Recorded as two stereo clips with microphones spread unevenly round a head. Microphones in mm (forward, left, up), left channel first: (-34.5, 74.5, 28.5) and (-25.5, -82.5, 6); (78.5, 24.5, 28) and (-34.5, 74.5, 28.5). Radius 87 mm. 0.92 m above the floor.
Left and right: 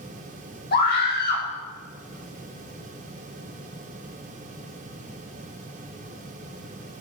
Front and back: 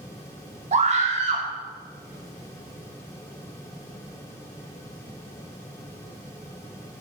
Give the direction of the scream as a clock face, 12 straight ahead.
8 o'clock.